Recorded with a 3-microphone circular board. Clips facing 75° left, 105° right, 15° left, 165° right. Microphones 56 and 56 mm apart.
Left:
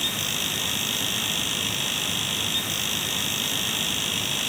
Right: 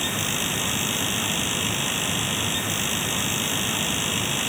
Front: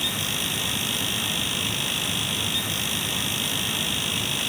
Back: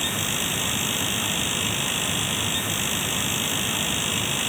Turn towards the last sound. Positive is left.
No sound to turn to.